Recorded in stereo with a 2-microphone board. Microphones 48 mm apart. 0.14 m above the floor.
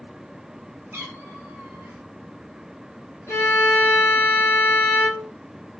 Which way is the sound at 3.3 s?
70° left (ahead or behind).